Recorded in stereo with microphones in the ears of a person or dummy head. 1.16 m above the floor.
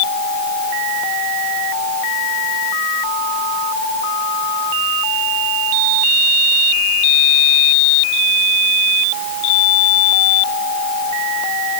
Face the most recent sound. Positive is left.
No sound to turn to.